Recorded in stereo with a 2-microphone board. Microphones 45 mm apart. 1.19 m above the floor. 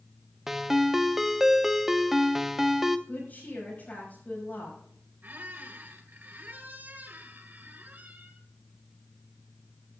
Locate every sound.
0.5 s a ringtone: 5° right (ahead or behind), 0.6 m
3.1 s a woman speaking: 40° left (ahead or behind), 5.5 m
5.2 s a squeak: 40° right (ahead or behind), 1.8 m